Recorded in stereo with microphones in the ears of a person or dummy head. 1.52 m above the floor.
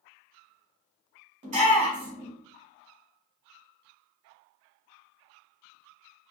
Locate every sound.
1.4 s a shout: 30° right (ahead or behind), 1.5 m